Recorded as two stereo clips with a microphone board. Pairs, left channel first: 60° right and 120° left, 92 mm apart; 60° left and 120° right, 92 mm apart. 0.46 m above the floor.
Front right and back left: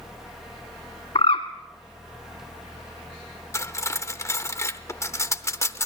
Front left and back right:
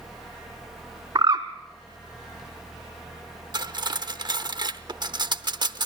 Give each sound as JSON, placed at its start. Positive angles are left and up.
{"t": 1.1, "sound": "a bird", "azimuth_deg": -75, "distance_m": 1.3}
{"t": 3.5, "sound": "cutlery clinking", "azimuth_deg": -110, "distance_m": 0.7}